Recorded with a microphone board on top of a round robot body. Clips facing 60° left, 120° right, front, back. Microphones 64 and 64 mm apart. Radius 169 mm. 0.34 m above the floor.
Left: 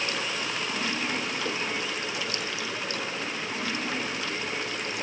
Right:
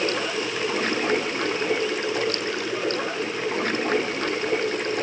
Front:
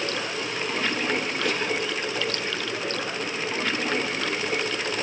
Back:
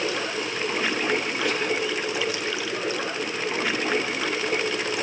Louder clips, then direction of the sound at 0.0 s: Right 6 dB, back 2 dB; 100° right.